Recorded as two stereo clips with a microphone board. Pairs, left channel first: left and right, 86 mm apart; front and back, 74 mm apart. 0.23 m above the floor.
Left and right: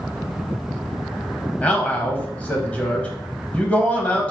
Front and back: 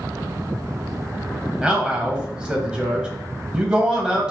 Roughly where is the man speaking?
Behind left.